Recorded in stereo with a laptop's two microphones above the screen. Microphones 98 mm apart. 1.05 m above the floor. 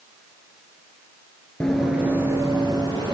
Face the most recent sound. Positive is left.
turn(degrees=-55)  # may be behind; listen again after turning